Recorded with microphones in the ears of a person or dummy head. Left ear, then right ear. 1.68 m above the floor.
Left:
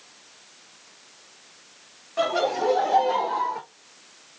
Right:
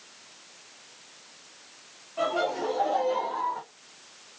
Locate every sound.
2.2 s laughter: 65° left (ahead or behind), 1.6 m; by 3.6 s 40° left (ahead or behind), 0.9 m